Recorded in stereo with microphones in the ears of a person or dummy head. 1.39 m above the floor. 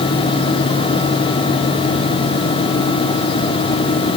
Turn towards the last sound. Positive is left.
No sound to turn to.